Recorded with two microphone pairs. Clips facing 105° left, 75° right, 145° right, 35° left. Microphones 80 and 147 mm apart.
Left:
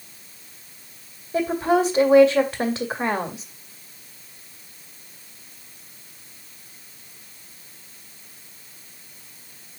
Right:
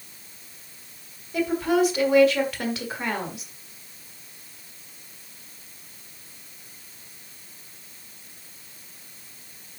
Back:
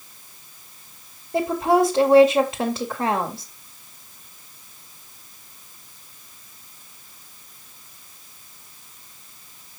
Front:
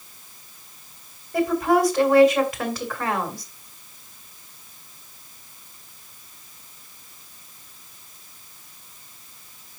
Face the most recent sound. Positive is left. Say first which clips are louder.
# left 2 dB, back 1 dB
turn(degrees=155)